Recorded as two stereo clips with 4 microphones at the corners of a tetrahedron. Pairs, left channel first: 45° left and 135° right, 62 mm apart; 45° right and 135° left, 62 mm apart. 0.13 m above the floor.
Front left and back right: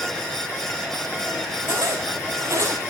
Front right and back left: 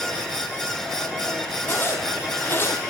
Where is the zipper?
95° right, 5.5 m.